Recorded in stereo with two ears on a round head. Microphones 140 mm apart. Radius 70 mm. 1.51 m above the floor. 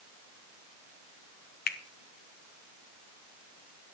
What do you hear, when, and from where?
1.7 s a finger snap: 65° left (ahead or behind), 0.7 m